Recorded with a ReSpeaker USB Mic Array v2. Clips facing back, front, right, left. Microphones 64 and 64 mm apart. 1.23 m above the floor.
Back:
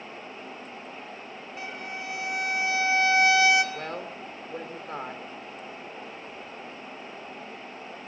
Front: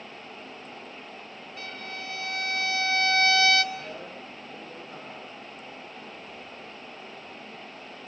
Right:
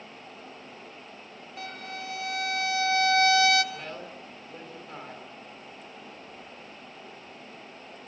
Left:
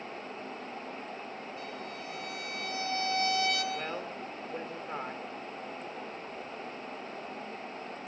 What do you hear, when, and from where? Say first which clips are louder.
1.6 s a violin: back 2 dB, right 2 dB; 110° right, 1.3 m
3.7 s a woman speaking: back 3 dB, left 3 dB; 150° left, 3 m